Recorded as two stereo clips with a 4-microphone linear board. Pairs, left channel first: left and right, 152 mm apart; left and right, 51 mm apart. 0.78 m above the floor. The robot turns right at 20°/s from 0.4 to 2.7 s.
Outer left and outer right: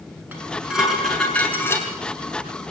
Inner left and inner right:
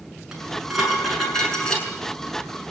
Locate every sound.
0.3 s dishes clattering: 10° right (ahead or behind), 6.5 m; by 1.9 s 15° left (ahead or behind), 6.5 m